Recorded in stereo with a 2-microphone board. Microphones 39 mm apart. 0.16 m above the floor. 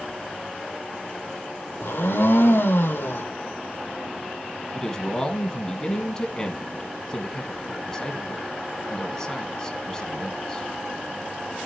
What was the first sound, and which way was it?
A blender, 70° left (ahead or behind).